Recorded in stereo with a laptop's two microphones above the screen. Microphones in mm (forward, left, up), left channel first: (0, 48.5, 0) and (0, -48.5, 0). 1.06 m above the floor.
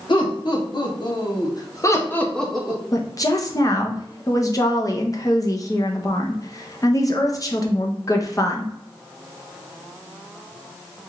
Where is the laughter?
55° left (ahead or behind), 1.8 m; by 2.8 s 10° right (ahead or behind), 0.9 m.